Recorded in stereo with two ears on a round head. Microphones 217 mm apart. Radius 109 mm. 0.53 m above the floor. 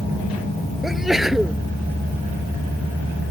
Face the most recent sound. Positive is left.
turn(degrees=0)  # may be behind; listen again after turning